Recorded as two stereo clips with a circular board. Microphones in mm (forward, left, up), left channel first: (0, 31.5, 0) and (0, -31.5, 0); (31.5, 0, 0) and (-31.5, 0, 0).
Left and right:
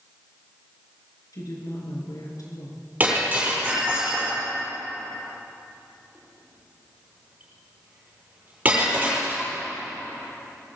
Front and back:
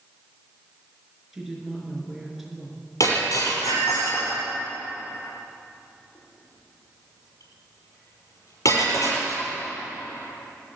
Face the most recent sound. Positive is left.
turn(degrees=-25)